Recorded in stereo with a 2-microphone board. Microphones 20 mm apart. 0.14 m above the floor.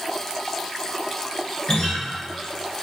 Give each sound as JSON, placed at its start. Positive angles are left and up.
{"t": 1.7, "sound": "a guitar", "side_deg": 45, "distance_m": 1.6}